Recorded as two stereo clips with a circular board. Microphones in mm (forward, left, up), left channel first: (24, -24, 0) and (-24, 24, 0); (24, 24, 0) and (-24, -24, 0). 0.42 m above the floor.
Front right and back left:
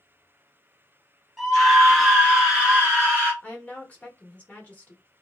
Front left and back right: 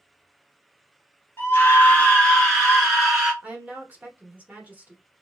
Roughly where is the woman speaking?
Right.